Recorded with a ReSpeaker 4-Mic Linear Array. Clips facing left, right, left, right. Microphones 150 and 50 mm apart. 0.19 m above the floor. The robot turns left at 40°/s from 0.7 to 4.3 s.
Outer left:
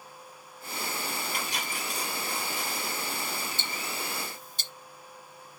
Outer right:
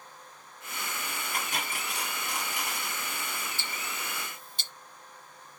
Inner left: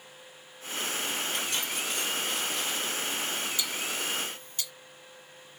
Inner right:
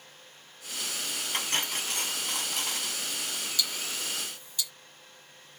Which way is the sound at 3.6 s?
20° left (ahead or behind).